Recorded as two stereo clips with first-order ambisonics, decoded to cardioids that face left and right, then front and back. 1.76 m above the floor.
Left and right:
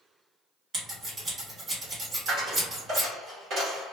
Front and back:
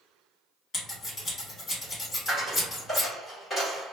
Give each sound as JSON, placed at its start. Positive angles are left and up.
{"t": 0.7, "sound": "scissors", "azimuth_deg": -45, "distance_m": 1.8}
{"t": 2.3, "sound": "a dropped coin", "azimuth_deg": -75, "distance_m": 1.7}